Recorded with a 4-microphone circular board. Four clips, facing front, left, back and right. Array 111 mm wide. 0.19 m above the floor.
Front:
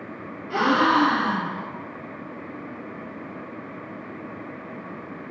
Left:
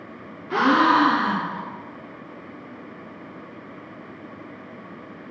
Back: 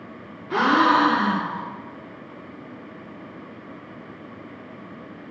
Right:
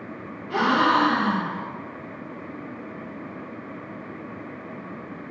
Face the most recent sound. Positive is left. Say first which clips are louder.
# left 3 dB, back 2 dB
turn(degrees=120)